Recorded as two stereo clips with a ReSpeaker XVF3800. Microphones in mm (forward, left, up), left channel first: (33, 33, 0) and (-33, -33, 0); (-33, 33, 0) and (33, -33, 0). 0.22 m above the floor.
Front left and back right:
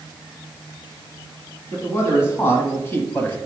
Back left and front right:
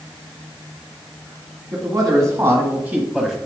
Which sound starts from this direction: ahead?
A man speaking, at 1.7 s.